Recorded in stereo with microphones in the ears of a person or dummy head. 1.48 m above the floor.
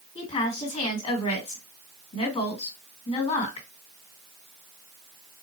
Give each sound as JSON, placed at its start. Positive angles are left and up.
{"t": 0.1, "sound": "a woman speaking", "side_deg": 40, "distance_m": 2.0}